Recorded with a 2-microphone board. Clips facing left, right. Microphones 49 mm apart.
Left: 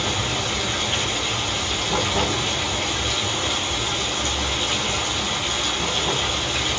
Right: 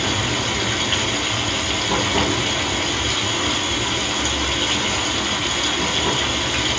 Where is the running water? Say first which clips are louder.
Right 3 dB; 70° right (ahead or behind), 1.4 m.